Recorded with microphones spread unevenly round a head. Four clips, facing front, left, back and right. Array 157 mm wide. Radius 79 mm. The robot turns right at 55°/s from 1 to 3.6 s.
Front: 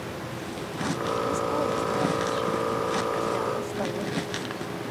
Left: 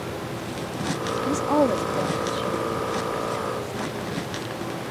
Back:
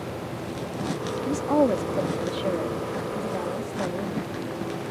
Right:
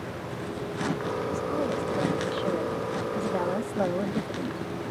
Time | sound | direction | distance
1.3 | a woman speaking | 125° left | ?